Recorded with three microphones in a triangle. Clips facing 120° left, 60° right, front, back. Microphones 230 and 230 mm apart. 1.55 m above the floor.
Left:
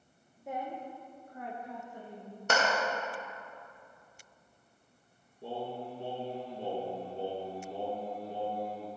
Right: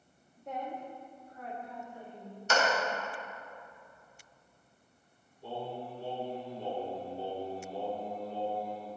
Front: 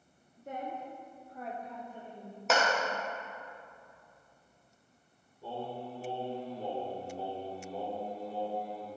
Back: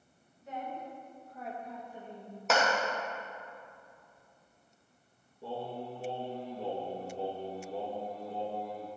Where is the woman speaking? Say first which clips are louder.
Left 1 dB, front 1 dB; 30° left, 1.2 m; by 2.4 s 110° left, 3 m.